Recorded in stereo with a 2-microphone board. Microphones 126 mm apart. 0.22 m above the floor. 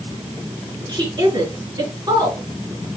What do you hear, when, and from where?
0.9 s a woman speaking: 35° right (ahead or behind), 3 m